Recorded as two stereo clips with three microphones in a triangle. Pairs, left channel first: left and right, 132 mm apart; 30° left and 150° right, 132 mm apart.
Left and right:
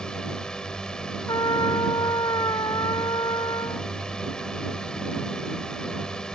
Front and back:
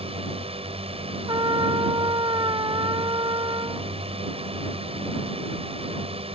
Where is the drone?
175° left.